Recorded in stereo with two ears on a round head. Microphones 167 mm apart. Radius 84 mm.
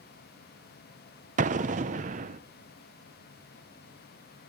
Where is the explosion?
40° right (ahead or behind), 0.6 m.